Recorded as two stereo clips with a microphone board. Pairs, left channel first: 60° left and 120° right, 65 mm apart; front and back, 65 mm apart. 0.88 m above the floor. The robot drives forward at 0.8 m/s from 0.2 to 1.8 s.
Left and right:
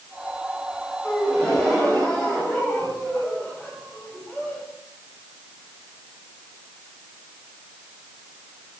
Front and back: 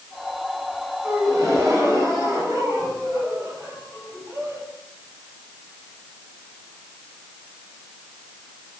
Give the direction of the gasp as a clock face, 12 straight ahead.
8 o'clock.